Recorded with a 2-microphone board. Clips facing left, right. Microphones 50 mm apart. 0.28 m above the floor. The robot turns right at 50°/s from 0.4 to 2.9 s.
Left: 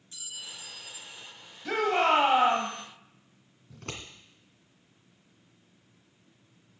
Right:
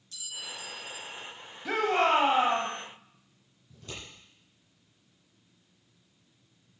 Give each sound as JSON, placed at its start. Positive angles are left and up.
{"t": 0.1, "sound": "a clink", "azimuth_deg": 155, "distance_m": 2.5}
{"t": 1.6, "sound": "a shout", "azimuth_deg": -15, "distance_m": 1.2}
{"t": 3.7, "sound": "scissors", "side_deg": 65, "distance_m": 2.0}